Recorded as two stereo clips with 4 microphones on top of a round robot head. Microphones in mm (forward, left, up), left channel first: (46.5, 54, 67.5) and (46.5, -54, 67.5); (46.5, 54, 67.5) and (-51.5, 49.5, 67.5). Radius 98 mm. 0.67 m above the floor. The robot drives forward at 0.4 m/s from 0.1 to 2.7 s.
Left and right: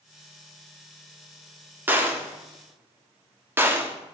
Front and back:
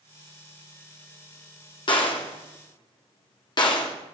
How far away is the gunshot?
About 2 m.